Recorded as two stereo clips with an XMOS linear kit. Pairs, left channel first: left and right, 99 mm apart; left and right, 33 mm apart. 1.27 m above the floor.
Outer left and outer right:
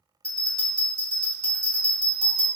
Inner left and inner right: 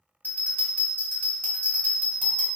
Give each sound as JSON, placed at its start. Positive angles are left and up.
{"t": 0.2, "sound": "a bell", "side_deg": 60, "distance_m": 1.7}